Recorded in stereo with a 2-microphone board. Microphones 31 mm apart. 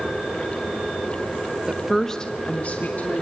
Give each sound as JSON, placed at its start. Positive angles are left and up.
{"t": 1.7, "sound": "a woman speaking", "side_deg": -15, "distance_m": 1.1}